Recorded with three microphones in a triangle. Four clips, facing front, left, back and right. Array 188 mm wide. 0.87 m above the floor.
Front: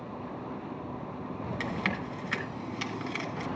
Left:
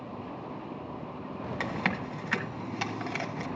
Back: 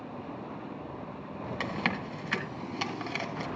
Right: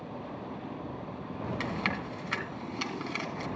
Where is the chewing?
130° left, 2.5 m.